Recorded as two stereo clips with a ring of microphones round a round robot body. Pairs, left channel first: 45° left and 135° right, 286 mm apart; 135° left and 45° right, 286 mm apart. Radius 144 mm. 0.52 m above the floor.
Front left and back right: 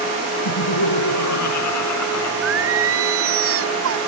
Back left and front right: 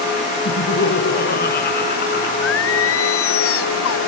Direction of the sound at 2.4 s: Straight behind.